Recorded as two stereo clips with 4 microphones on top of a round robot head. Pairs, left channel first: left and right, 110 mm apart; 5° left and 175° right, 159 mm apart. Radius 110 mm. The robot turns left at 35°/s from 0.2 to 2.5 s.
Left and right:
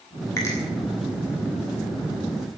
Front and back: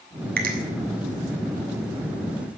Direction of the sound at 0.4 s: 165° left.